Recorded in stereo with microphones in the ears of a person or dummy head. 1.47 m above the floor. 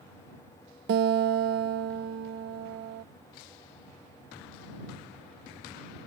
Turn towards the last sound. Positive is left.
turn(degrees=-55)  # may be behind; listen again after turning